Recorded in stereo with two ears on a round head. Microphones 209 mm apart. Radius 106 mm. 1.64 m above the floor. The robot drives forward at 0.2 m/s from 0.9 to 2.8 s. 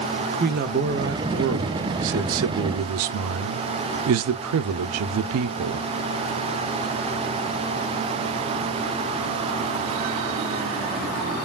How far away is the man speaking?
About 0.6 m.